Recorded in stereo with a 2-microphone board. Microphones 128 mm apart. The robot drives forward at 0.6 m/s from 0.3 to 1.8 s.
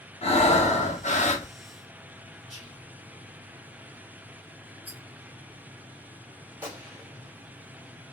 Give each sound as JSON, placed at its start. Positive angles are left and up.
{"t": 0.2, "sound": "breathing", "side_deg": 55, "distance_m": 0.9}
{"t": 2.5, "sound": "whispering", "side_deg": 75, "distance_m": 2.0}
{"t": 4.8, "sound": "a rattle", "side_deg": -15, "distance_m": 1.0}
{"t": 6.6, "sound": "a gunshot", "side_deg": -15, "distance_m": 1.7}